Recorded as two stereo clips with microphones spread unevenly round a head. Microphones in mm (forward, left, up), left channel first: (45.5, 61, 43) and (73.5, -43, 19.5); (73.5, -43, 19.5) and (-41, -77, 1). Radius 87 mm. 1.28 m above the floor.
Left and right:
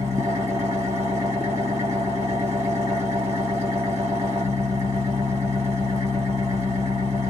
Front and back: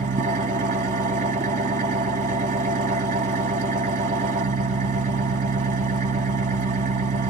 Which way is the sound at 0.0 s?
155° right.